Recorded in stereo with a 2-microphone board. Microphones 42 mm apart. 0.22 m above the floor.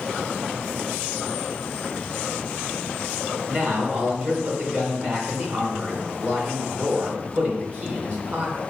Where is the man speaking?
45° right (ahead or behind), 2.5 m.